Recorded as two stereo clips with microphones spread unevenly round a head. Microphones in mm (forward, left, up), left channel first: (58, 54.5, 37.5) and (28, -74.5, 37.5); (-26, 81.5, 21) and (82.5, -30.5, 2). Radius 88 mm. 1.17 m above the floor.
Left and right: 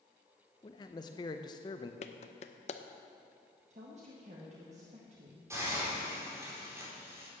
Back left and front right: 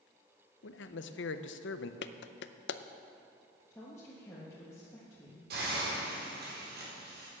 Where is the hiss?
35° right, 4.5 m.